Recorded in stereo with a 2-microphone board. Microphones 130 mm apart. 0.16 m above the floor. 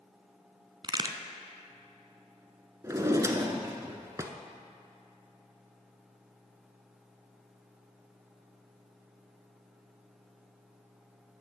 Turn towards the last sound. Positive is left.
turn(degrees=-25)  # may be behind; listen again after turning